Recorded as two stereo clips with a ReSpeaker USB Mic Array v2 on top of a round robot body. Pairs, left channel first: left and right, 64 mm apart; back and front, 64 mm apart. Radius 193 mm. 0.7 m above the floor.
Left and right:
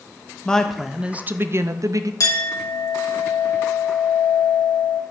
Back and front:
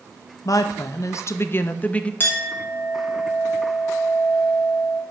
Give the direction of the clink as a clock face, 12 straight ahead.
8 o'clock.